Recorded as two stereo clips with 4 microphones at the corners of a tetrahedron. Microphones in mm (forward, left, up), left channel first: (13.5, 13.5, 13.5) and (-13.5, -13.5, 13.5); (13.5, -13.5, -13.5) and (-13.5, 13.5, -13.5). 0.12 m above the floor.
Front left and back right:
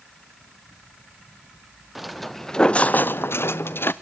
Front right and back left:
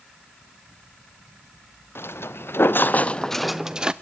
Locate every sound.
1.9 s footsteps: 50° right, 1.2 m; by 3.9 s 70° left, 1.0 m